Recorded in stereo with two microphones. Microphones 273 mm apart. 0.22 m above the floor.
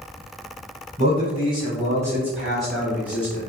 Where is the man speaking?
25° right (ahead or behind), 1.4 m; by 3.4 s 10° left (ahead or behind), 1.3 m.